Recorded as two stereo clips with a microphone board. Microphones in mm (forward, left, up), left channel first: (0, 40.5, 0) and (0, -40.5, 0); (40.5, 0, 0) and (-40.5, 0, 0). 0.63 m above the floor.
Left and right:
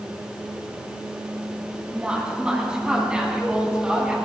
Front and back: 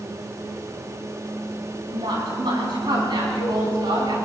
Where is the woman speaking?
165° right, 5.5 m.